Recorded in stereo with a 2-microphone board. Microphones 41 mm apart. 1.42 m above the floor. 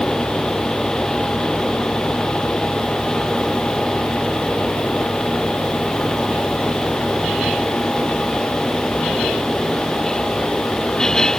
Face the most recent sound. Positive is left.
No sound to turn to.